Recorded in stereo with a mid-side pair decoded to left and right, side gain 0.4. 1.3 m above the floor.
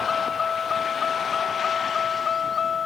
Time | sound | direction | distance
0.0 | a vehicle | 45° left | ?